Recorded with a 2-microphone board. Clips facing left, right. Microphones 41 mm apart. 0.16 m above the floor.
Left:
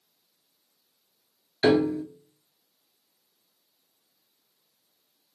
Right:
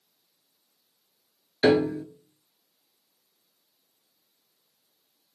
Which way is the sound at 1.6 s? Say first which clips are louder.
Even; 10° right (ahead or behind).